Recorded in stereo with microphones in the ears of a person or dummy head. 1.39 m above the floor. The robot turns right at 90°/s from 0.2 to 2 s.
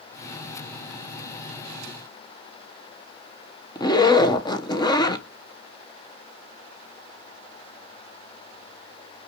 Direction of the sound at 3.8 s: 25° left (ahead or behind).